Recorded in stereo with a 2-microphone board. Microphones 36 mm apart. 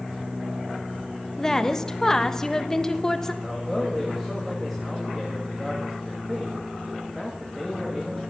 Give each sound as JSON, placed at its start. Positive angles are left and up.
{"t": 1.4, "sound": "a woman speaking", "side_deg": 15, "distance_m": 0.9}
{"t": 3.4, "sound": "a man speaking", "side_deg": -5, "distance_m": 2.0}